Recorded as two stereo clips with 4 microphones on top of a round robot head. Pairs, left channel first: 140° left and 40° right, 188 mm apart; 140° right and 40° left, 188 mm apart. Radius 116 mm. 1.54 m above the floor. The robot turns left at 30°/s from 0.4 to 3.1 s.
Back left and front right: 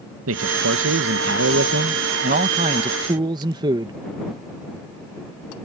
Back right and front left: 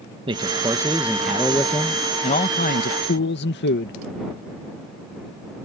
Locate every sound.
0.3 s a man speaking: 25° right; by 4.0 s 110° right